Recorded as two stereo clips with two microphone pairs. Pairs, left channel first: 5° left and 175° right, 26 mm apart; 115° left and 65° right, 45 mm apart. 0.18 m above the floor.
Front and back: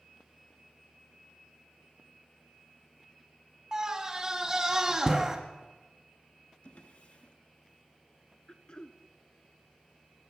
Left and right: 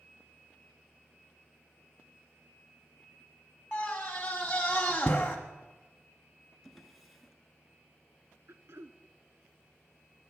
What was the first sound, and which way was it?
A scream, 160° left.